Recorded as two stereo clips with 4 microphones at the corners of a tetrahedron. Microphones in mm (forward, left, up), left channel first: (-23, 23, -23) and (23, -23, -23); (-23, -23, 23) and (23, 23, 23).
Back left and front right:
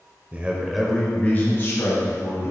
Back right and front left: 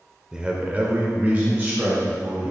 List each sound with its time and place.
0.3 s a man speaking: 20° right, 1.0 m; by 2.5 s 105° left, 1.9 m